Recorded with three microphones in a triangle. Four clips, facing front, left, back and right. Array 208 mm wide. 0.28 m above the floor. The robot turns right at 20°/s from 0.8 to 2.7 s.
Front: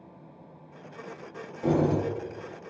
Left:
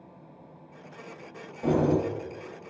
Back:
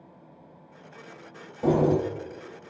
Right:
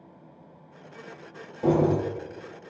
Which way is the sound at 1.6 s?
150° right.